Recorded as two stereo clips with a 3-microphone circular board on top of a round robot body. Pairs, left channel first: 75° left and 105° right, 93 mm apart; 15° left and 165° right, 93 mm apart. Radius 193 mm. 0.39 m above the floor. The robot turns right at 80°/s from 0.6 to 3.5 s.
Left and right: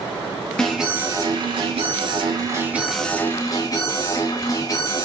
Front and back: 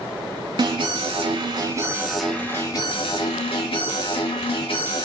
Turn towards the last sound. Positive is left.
turn(degrees=30)